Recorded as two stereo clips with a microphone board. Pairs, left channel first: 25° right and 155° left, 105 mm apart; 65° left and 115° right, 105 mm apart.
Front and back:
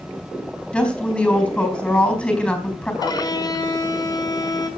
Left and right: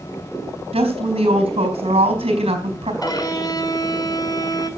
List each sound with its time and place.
0.7 s a woman speaking: 100° right, 4.5 m
3.0 s a violin: 20° left, 2.5 m